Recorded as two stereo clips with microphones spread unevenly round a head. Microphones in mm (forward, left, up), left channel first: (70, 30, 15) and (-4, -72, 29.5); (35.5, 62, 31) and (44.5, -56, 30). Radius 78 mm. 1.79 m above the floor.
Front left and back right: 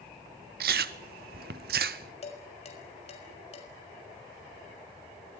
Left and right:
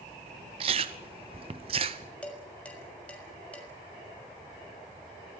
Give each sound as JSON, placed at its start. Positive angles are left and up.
{"t": 0.6, "sound": "chewing", "azimuth_deg": -140, "distance_m": 0.8}
{"t": 2.2, "sound": "dishes clattering", "azimuth_deg": 15, "distance_m": 6.0}